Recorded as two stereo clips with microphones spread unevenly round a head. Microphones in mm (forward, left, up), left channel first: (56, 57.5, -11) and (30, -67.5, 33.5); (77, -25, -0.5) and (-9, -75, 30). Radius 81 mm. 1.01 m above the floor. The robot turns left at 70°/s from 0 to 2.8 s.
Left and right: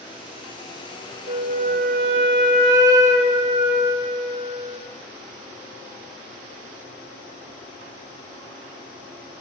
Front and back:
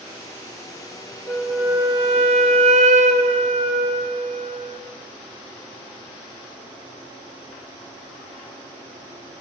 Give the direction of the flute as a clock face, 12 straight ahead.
2 o'clock.